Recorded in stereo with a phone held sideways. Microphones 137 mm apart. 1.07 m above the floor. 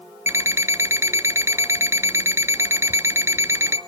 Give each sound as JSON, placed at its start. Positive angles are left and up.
{"t": 0.3, "sound": "an alarm clock", "side_deg": -20, "distance_m": 1.0}